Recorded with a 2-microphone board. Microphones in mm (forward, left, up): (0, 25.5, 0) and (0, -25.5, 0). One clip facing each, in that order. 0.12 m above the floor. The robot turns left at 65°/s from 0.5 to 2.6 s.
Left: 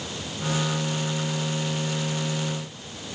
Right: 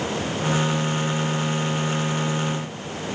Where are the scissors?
No scissors in this recording.